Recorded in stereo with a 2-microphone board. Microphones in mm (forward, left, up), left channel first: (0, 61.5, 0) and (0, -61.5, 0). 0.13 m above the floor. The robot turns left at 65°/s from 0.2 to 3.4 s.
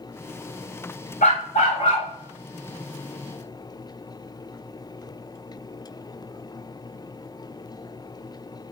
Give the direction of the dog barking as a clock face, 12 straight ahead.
9 o'clock.